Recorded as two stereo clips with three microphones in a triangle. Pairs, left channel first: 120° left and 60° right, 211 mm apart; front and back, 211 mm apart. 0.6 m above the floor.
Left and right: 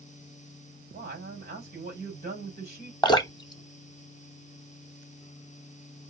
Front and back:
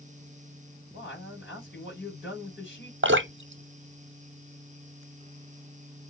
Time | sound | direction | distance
0.9 | a man speaking | 20° right | 3.5 m
3.0 | dripping | 170° right | 0.7 m